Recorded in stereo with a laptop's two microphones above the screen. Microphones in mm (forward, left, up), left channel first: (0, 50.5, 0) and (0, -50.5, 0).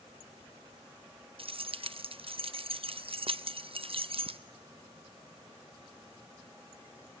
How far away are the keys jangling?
About 0.6 m.